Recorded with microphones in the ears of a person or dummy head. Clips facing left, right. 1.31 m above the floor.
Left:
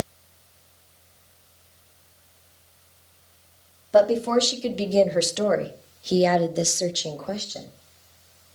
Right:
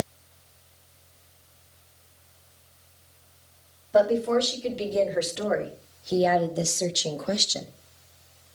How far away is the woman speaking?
About 3 m.